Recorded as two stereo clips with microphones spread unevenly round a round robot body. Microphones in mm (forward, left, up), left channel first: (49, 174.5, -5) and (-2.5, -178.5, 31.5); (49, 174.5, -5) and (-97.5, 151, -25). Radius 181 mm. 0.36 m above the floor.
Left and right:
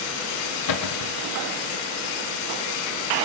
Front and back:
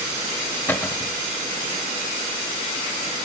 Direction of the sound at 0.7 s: 90° left.